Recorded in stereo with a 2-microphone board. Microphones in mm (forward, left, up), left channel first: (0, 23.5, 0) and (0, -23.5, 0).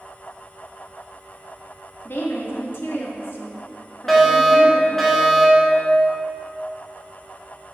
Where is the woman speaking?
60° left (ahead or behind), 1.8 m.